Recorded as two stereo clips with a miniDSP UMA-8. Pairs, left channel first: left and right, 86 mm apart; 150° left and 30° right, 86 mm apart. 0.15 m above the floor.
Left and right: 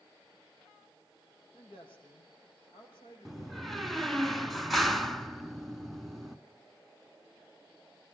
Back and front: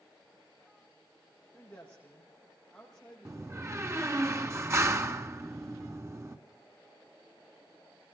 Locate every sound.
1.5 s a woman speaking: 75° left, 9 m; by 4.2 s 60° left, 8.5 m
3.2 s a door slam: straight ahead, 1.4 m